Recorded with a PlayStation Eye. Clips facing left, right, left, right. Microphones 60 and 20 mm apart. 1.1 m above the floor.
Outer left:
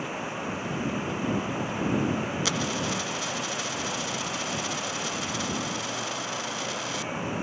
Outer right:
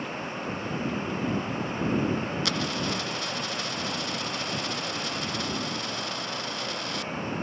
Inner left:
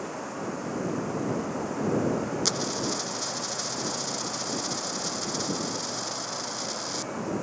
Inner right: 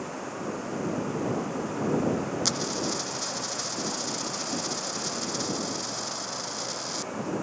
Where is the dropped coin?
Centre (ahead or behind).